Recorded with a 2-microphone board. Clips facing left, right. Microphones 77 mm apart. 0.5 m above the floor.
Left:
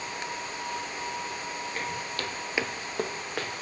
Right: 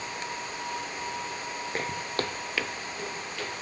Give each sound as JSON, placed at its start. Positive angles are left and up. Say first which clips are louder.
{"t": 1.7, "sound": "footsteps", "louder": "right 5 dB", "side_deg": -60, "distance_m": 1.3}